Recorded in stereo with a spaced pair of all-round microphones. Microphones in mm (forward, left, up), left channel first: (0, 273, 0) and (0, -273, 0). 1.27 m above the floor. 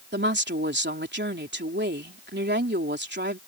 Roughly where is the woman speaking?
Centre.